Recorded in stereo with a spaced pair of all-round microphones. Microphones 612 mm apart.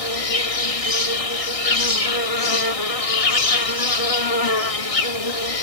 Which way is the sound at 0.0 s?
65° left (ahead or behind).